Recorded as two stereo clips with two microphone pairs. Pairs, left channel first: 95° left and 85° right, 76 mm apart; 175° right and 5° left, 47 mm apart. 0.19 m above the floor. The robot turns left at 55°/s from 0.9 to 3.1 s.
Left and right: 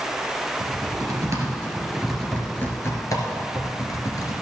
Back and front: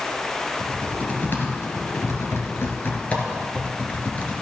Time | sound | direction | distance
0.6 | typing on a keyboard | 110° right | 2 m